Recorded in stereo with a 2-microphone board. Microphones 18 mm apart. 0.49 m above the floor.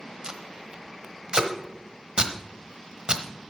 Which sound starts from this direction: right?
Tape being pulled, at 0.2 s.